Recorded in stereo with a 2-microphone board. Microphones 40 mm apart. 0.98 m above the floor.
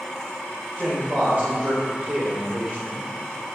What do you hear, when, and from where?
0.8 s a man speaking: 40° right (ahead or behind), 5 m; by 3.1 s 50° right (ahead or behind), 3 m